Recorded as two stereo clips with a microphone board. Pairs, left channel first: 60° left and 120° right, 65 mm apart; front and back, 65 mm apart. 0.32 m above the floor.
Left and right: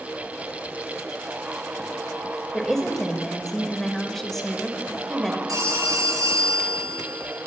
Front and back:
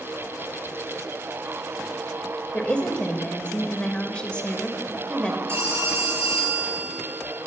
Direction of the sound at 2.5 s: 15° right.